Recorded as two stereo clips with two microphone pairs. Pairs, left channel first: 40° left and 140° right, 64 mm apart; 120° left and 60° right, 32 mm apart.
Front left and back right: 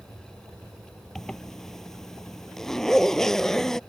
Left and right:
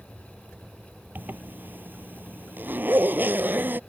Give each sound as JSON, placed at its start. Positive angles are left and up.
{"t": 1.1, "sound": "a zipper", "azimuth_deg": -45}